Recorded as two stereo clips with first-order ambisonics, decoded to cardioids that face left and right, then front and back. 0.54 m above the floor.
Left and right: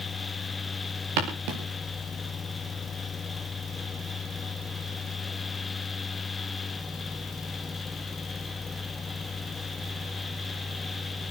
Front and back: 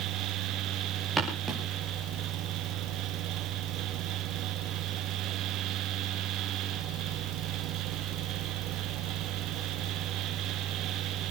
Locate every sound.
1.2 s footsteps: 100° right, 5 m